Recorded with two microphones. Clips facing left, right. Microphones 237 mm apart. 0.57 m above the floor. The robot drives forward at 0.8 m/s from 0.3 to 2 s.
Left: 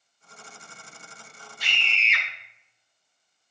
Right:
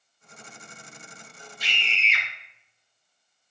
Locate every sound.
1.6 s a scream: 65° left (ahead or behind), 2.5 m; by 2.2 s 70° left (ahead or behind), 2.5 m